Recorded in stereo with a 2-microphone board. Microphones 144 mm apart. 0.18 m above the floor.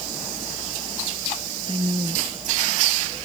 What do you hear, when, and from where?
1.7 s a woman speaking: 40° right (ahead or behind)